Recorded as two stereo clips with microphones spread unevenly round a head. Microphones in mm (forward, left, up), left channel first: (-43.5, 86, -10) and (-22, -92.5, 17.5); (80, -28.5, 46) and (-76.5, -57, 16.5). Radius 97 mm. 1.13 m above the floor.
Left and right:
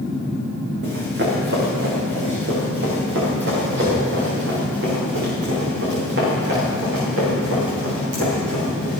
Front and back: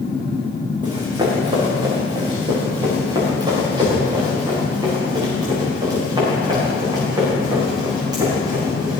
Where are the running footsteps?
105° right, 5 m; by 9.0 s 100° right, 9.5 m.